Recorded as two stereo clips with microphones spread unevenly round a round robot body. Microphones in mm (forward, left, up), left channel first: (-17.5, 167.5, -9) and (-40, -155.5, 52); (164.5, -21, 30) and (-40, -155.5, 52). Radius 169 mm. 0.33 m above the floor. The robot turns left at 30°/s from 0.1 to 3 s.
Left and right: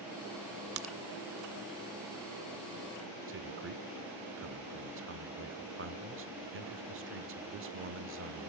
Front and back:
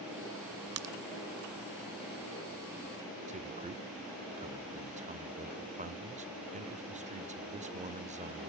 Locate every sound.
0.8 s a crack: 135° right, 0.8 m; by 0.9 s 140° right, 0.8 m
3.3 s a man speaking: 115° right, 1.1 m